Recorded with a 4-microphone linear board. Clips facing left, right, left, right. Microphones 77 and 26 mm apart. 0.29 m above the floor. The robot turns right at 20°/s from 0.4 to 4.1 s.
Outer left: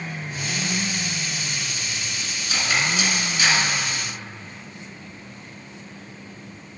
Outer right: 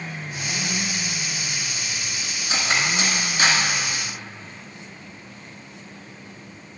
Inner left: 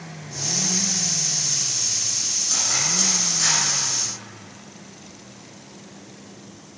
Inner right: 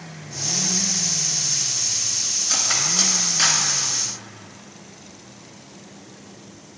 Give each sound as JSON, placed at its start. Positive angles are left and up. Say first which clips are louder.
{"t": 2.5, "sound": "cutlery clinking", "louder": "even, inner right 2 dB", "side_deg": -30, "distance_m": 1.7}